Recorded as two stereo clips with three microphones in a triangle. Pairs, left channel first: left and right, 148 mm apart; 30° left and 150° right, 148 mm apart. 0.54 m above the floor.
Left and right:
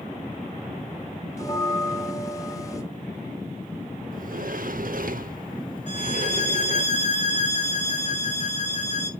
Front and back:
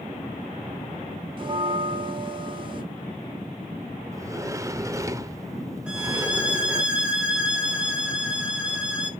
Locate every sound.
1.4 s a bell: 155° left, 1.8 m
4.1 s a sliding door: 80° right, 0.7 m
5.9 s a violin: 125° left, 2 m